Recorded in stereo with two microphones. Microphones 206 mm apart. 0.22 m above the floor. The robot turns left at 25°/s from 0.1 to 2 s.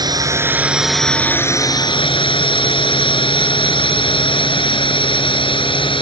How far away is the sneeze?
No sneeze in this recording.